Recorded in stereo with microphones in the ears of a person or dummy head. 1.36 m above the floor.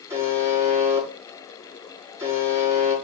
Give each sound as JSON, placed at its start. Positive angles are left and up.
{"t": 0.1, "sound": "a buzzer", "side_deg": -15, "distance_m": 8.5}